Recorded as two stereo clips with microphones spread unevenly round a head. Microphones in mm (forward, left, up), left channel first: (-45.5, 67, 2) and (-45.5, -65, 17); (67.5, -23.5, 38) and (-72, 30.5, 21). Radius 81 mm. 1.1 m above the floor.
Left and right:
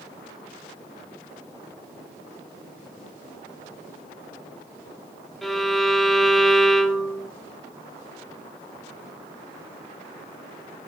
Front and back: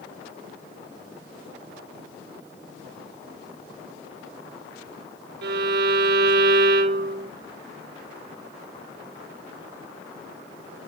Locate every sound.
5.4 s a violin: straight behind, 0.6 m